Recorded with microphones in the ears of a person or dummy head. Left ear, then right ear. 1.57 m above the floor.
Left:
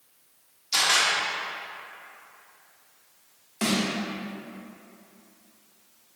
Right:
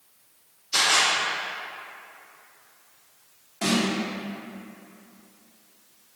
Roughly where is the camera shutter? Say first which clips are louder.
Right 1 dB; left.